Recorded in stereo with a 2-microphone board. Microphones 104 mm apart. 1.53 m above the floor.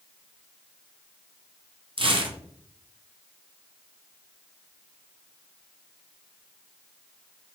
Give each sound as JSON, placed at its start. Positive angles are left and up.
{"t": 2.0, "sound": "tearing paper", "side_deg": -55, "distance_m": 0.5}